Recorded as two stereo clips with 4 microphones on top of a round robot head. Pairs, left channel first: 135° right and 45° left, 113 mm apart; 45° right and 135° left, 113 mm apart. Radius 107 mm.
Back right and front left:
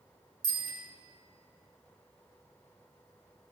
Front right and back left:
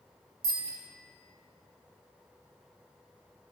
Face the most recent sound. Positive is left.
turn(degrees=95)